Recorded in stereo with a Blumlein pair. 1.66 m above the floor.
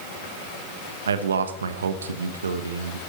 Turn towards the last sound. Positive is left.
turn(degrees=-70)